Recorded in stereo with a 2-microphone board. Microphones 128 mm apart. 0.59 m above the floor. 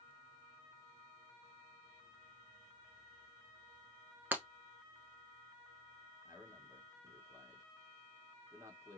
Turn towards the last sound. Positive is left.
turn(degrees=-25)  # may be behind; listen again after turning